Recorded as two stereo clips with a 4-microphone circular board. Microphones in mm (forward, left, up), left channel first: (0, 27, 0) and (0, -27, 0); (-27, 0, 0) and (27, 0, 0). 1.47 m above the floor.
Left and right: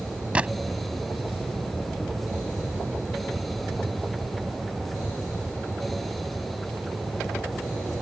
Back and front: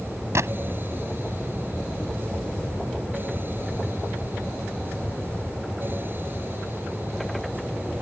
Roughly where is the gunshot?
Ahead right.